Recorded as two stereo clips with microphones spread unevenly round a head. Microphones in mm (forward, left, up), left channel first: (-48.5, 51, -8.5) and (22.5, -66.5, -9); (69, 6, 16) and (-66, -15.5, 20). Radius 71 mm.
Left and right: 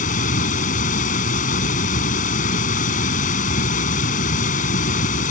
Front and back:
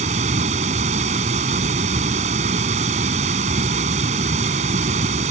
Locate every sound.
0.0 s running water: 145° left